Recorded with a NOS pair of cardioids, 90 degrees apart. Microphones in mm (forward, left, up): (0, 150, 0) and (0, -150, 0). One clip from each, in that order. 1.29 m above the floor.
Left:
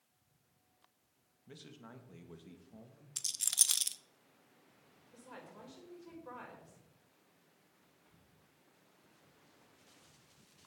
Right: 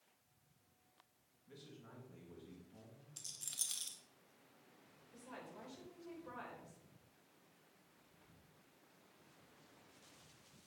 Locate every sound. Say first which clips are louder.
1.5 s a man speaking: left 4 dB; 60° left, 2.5 m
3.2 s a rattle: left 12 dB; 65° left, 0.7 m
5.1 s a woman speaking: left 1 dB; 20° left, 6 m